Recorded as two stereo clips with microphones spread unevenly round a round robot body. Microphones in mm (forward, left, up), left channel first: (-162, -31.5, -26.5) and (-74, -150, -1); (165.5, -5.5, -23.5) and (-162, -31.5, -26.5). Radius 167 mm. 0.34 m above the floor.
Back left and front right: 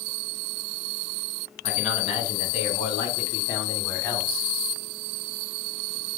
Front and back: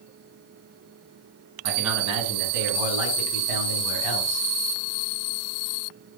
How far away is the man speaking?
About 2.5 m.